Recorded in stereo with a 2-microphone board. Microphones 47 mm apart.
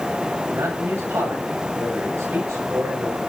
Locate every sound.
0.5 s a man speaking: 90° right, 9.5 m